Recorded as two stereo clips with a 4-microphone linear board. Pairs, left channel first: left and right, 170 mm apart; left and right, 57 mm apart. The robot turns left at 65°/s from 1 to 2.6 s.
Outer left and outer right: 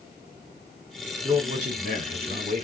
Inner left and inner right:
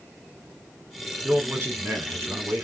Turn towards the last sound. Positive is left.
turn(degrees=-130)